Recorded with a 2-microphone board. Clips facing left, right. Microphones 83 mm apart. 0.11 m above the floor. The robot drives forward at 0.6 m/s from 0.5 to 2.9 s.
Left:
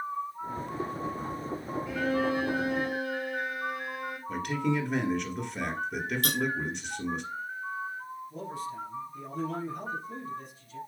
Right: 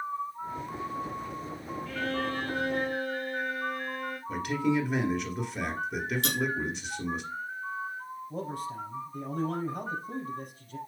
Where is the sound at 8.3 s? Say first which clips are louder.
Right 3 dB; 55° right (ahead or behind), 3 m.